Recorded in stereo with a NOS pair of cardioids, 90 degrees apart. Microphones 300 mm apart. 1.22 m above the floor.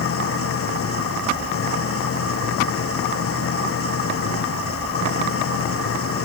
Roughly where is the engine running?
Ahead left.